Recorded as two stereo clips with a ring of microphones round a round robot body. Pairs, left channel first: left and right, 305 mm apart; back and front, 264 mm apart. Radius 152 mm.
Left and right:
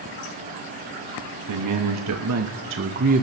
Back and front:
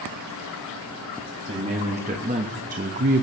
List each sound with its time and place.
1.5 s a man speaking: 70° right, 1.4 m; by 3.2 s 40° right, 0.7 m